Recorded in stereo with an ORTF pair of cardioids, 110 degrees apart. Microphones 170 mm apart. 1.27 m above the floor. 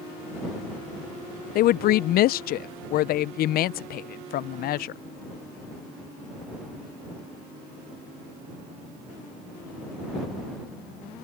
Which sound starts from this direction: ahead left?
A woman speaking, at 1.6 s.